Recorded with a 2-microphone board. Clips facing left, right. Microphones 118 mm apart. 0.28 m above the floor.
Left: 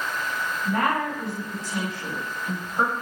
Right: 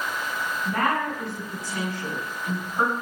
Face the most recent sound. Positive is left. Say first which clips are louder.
# left 1 dB
turn(degrees=20)  # may be behind; listen again after turning